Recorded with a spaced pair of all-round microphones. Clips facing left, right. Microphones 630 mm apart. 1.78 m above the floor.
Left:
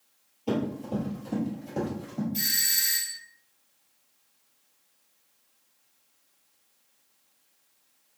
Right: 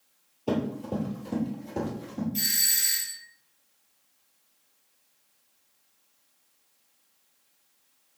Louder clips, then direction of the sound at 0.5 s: Even; 30° left (ahead or behind).